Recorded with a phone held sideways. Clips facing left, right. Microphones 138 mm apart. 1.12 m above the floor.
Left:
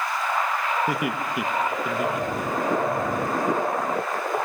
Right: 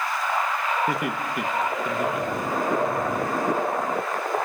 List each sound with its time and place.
0.9 s laughter: 5° left (ahead or behind), 1.4 m